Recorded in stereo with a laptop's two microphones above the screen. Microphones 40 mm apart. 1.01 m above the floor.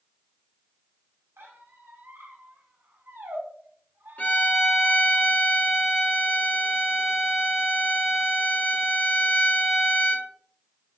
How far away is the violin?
About 1.0 m.